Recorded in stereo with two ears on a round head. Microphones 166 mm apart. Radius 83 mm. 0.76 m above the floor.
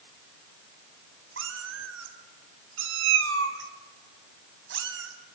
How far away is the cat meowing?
About 2 m.